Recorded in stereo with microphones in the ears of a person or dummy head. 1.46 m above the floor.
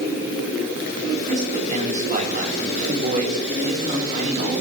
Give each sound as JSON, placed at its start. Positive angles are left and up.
{"t": 1.3, "sound": "a man speaking", "side_deg": -40, "distance_m": 4.5}